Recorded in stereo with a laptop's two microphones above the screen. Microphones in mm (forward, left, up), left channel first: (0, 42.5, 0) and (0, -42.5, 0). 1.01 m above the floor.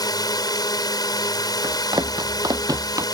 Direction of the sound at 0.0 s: 50° left (ahead or behind).